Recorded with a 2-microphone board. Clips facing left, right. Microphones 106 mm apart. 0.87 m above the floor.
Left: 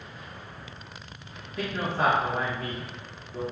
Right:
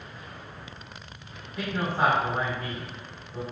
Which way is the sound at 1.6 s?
5° right (ahead or behind).